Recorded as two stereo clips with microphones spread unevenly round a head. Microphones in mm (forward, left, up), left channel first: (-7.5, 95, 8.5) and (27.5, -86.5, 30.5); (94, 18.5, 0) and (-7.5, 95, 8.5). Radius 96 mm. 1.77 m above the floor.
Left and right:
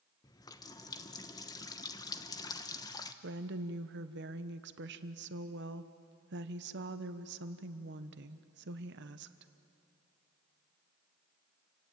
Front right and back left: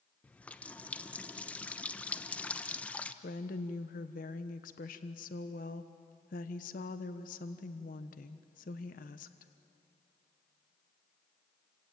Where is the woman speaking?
60° right, 1.1 m.